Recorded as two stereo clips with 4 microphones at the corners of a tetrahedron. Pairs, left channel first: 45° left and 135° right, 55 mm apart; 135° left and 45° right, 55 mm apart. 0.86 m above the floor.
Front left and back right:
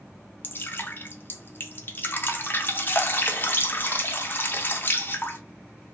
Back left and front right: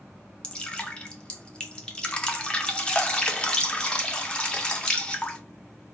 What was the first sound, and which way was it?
Dripping, 70° left.